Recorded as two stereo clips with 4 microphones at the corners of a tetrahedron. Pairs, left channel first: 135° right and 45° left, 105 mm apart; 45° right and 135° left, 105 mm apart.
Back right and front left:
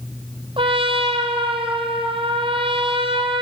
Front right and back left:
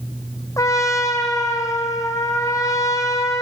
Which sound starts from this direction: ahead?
A trumpet, at 0.6 s.